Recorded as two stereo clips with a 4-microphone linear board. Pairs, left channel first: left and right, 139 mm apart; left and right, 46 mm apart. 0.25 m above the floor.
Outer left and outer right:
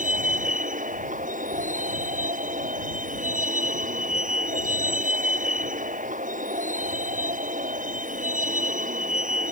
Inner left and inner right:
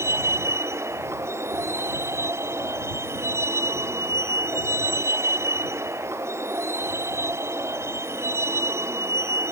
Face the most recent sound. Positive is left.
turn(degrees=-75)  # may be behind; listen again after turning